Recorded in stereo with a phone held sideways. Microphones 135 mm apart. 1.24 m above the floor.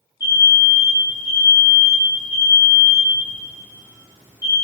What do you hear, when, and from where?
0.2 s an alarm: 25° right (ahead or behind), 4.5 m